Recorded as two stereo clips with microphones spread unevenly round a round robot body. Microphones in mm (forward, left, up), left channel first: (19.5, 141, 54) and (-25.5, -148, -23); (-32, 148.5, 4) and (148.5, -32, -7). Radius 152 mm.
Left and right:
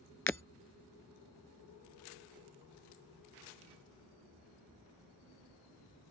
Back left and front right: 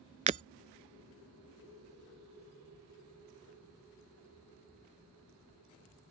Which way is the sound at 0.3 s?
15° left.